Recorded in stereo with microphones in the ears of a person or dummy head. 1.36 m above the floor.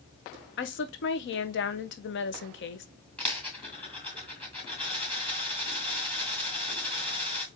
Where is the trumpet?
I don't hear a trumpet.